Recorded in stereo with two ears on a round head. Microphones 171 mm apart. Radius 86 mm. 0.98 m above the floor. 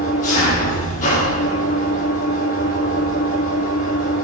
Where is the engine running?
40° left (ahead or behind), 9 m.